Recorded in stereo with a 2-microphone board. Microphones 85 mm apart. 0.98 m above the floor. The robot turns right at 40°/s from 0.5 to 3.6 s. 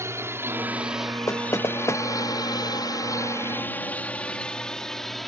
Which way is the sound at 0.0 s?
35° right (ahead or behind).